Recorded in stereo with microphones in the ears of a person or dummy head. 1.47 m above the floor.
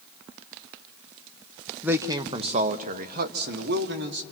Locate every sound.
1.8 s a man speaking: 5° right (ahead or behind), 0.6 m; by 4.2 s 55° right (ahead or behind), 1.5 m